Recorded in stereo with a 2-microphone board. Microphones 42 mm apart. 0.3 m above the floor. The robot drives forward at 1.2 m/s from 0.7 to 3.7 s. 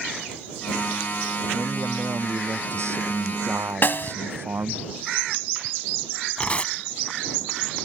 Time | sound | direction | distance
1.5 | a man speaking | 75° right (ahead or behind) | ?
3.8 | a snare drum | 55° left (ahead or behind) | ?
6.4 | tearing paper | 30° left (ahead or behind) | ?